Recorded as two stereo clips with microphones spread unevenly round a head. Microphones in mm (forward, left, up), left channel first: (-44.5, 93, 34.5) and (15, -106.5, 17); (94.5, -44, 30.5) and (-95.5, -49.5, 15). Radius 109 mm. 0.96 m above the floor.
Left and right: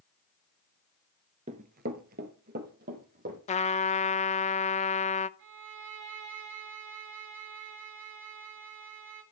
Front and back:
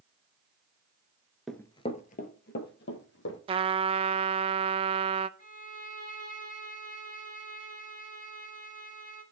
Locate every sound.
1.5 s running footsteps: 80° right, 0.9 m; by 3.4 s 20° right, 3 m
3.5 s a trumpet: 150° left, 0.6 m
5.4 s a violin: 45° right, 3 m